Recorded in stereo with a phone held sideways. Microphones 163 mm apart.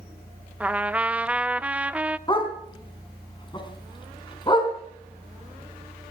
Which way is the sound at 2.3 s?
30° left (ahead or behind).